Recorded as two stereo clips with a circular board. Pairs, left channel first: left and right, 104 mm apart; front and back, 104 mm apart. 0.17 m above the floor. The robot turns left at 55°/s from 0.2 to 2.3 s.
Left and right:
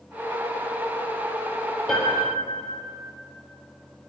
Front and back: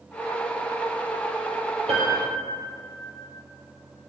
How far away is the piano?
About 3 m.